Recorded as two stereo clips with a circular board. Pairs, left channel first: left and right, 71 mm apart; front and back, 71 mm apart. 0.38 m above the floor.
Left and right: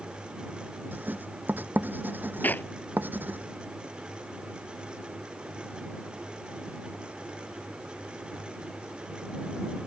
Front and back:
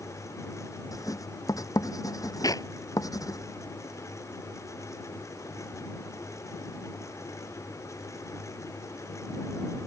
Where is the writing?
30° right.